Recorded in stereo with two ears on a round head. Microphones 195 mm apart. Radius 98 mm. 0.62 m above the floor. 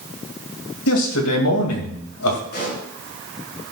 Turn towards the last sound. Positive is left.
turn(degrees=55)  # may be behind; listen again after turning